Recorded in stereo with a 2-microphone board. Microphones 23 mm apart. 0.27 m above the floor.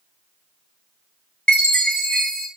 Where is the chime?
45° left (ahead or behind), 0.8 m.